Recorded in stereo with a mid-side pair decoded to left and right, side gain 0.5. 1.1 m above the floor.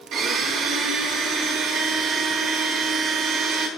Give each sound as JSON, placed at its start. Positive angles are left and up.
{"t": 0.1, "sound": "a blender", "azimuth_deg": -60, "distance_m": 3.5}